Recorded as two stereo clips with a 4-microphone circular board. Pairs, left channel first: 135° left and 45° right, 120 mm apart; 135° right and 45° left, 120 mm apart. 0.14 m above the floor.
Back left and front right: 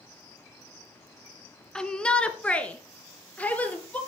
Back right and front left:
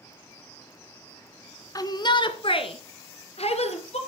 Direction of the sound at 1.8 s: 145° right.